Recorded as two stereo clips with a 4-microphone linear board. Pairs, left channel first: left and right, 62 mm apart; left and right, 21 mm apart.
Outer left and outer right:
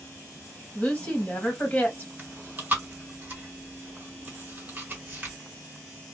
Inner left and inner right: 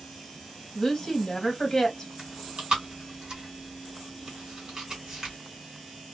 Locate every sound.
0.8 s a woman speaking: 20° left (ahead or behind), 1.4 m
2.2 s chewing: 30° right (ahead or behind), 1.6 m